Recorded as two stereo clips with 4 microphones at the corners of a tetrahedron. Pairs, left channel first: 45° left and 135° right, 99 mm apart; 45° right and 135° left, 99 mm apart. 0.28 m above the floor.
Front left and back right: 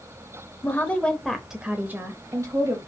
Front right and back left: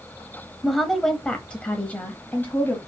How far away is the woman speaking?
About 0.9 m.